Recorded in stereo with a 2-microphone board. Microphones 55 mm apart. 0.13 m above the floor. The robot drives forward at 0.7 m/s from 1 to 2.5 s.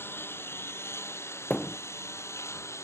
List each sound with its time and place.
0.0 s a lawn mower: 45° left (ahead or behind); by 2.9 s 55° left (ahead or behind)
1.5 s a thud: 20° left (ahead or behind); by 1.8 s 30° left (ahead or behind)